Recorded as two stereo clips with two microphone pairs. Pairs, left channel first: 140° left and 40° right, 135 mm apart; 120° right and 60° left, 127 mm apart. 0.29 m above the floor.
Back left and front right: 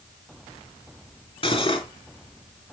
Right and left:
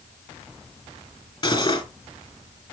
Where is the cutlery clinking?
170° right, 2 m.